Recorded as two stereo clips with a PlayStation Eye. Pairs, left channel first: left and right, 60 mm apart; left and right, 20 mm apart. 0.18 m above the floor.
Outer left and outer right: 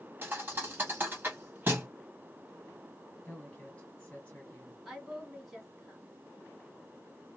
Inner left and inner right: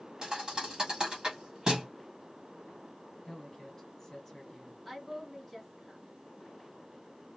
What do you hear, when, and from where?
0.2 s a thud: 35° right (ahead or behind), 1.6 m
3.2 s a woman speaking: 20° left (ahead or behind), 1.4 m
4.8 s a woman speaking: centre (ahead or behind), 1.9 m